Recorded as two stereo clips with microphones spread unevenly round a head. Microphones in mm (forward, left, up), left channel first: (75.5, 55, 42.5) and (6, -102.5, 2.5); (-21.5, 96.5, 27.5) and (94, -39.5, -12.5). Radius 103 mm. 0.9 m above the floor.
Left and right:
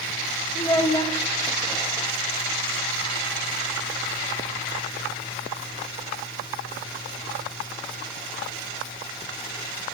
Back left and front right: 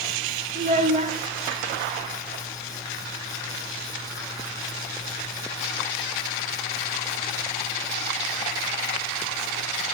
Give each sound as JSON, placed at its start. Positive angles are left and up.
{"t": 0.6, "sound": "a child speaking", "azimuth_deg": 0, "distance_m": 1.5}